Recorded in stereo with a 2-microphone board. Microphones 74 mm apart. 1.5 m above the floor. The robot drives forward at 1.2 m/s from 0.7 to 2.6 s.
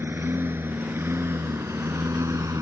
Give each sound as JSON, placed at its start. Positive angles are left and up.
{"t": 0.0, "sound": "a lawn mower", "side_deg": -30}